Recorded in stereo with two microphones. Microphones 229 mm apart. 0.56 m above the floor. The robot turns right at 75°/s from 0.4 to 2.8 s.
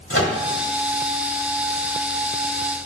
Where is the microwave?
65° left (ahead or behind), 1.3 m.